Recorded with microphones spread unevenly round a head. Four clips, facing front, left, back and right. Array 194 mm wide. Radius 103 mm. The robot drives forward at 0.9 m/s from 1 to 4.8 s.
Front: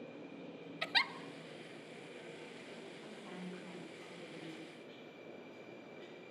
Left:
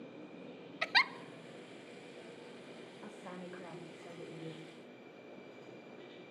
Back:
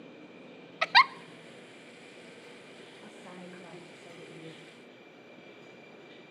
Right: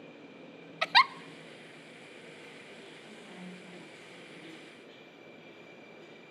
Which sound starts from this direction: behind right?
A giggle, at 0.8 s.